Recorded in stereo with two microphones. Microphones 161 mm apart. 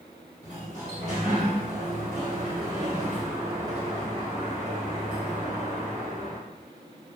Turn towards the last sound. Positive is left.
turn(degrees=-45)  # may be behind; listen again after turning